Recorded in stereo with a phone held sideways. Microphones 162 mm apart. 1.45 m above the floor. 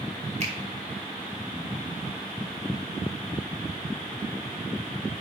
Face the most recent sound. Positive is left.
turn(degrees=-50)  # may be behind; listen again after turning